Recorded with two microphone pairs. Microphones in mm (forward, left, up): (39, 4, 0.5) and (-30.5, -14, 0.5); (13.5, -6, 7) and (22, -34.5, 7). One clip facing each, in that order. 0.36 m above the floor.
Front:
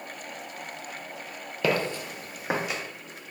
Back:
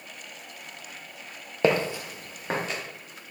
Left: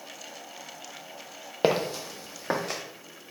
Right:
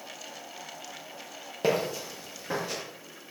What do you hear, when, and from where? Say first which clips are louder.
1.6 s footsteps: back 3 dB, left 2 dB; 140° left, 0.5 m; by 2.8 s 85° left, 1.0 m